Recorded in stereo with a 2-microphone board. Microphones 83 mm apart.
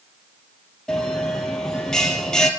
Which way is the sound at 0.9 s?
5° left (ahead or behind).